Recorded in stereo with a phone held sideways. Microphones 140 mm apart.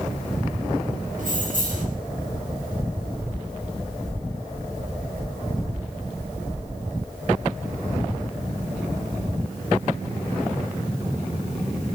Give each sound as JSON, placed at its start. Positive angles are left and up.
{"t": 1.2, "sound": "keys jangling", "side_deg": -65, "distance_m": 4.5}